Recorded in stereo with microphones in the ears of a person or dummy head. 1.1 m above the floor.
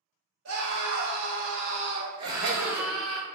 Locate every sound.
0.5 s a scream: 65° right (ahead or behind), 1.4 m; by 3.2 s 5° left (ahead or behind), 1.0 m
2.2 s laughter: 65° right (ahead or behind), 0.8 m